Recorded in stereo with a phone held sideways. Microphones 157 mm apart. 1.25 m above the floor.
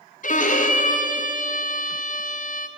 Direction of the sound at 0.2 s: 55° left (ahead or behind).